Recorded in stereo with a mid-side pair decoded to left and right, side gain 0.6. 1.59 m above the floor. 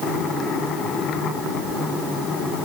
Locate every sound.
Only background noise.